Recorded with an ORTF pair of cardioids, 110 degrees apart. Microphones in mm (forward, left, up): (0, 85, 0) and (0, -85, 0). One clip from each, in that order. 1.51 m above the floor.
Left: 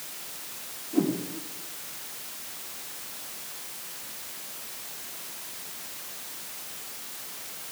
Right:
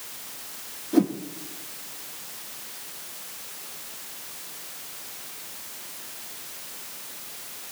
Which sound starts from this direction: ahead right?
A whoosh, at 0.9 s.